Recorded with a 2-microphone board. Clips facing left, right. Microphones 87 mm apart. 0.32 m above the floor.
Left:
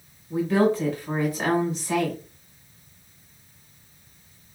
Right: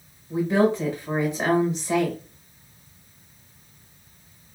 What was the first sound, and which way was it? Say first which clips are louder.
A woman speaking: even; 20° right (ahead or behind).